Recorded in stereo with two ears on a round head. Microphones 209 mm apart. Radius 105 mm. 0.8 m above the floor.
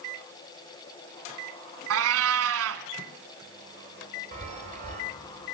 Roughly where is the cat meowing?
Right.